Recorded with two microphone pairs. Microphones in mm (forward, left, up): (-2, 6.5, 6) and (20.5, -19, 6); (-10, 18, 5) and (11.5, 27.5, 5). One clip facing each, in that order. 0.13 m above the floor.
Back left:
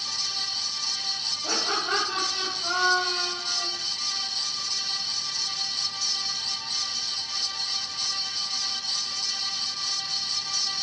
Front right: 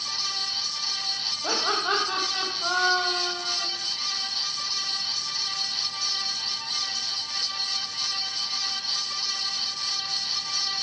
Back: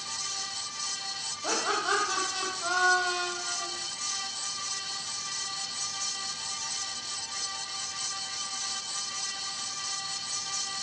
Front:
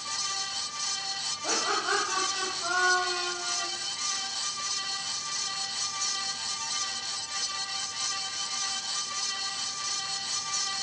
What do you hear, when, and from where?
1.4 s laughter: 85° right, 5.5 m